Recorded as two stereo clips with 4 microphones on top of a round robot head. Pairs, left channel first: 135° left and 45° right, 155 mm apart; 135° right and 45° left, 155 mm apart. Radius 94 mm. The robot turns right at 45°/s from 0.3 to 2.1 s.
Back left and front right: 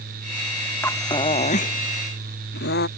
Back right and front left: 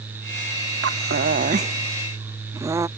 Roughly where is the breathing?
Ahead left.